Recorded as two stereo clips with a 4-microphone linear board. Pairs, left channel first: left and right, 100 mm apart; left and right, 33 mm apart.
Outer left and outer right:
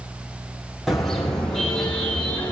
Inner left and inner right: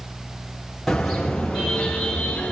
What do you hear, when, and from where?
0.9 s a car horn: centre (ahead or behind), 4.5 m; by 2.5 s 15° left (ahead or behind), 5.5 m